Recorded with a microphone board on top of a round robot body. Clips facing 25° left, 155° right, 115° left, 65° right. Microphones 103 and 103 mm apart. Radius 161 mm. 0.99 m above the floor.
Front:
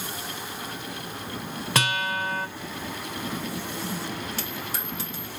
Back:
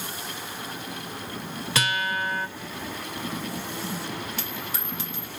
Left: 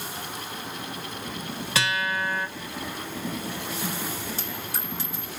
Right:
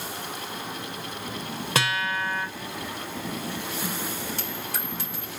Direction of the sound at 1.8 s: 25° right.